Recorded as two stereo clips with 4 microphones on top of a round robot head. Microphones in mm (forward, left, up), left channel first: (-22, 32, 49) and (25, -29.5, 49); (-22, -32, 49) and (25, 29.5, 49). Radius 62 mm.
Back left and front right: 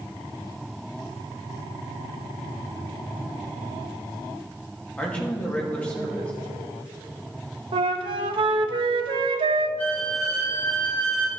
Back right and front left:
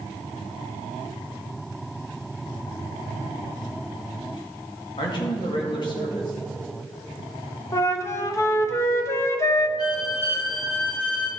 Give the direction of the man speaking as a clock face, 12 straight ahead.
5 o'clock.